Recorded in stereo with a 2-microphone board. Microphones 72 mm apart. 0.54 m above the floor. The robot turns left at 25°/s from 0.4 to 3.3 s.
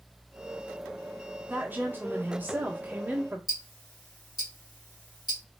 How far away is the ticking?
About 1.2 m.